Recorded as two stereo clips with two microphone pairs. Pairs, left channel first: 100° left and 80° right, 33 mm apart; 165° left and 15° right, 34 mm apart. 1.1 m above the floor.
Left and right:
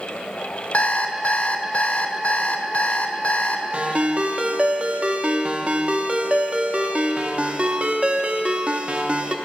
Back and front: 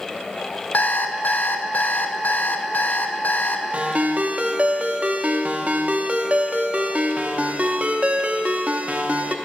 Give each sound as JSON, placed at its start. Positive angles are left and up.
{"t": 0.7, "sound": "an alarm clock", "azimuth_deg": 145, "distance_m": 0.6}
{"t": 3.7, "sound": "a ringtone", "azimuth_deg": -45, "distance_m": 0.6}